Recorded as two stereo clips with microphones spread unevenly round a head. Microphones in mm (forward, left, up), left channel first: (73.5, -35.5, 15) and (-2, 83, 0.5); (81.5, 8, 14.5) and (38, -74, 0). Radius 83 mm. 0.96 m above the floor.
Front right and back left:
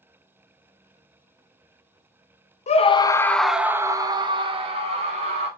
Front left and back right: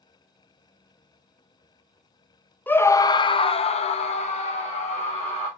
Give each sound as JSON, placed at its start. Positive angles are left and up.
{"t": 2.7, "sound": "a scream", "azimuth_deg": -15, "distance_m": 0.7}